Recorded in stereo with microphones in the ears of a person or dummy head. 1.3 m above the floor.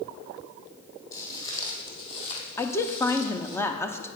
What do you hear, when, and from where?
1.1 s footsteps: 25° left (ahead or behind), 2.5 m; by 3.6 s 50° left (ahead or behind), 1.9 m
2.6 s a woman speaking: 5° left (ahead or behind), 0.6 m